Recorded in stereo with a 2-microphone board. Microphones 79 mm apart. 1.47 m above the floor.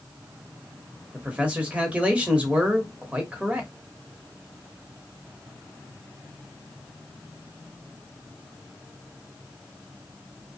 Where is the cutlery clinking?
No cutlery clinking in this recording.